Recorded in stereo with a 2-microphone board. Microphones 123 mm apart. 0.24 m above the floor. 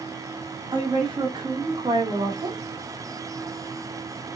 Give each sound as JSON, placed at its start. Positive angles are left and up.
{"t": 0.7, "sound": "a woman speaking", "side_deg": -35, "distance_m": 1.6}